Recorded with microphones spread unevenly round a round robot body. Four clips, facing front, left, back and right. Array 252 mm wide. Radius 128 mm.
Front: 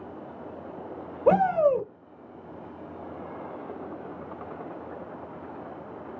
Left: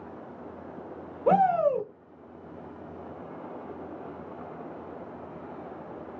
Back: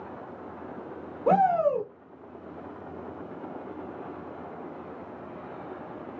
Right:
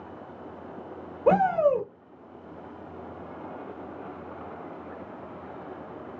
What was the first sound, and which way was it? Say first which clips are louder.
A shout: right 1 dB, front 1 dB; 30° right.